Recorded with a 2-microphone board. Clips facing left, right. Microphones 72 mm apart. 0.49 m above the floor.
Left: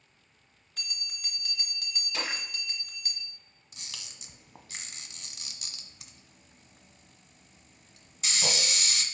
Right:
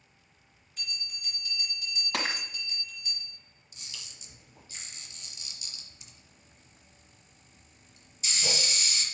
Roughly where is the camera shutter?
Left.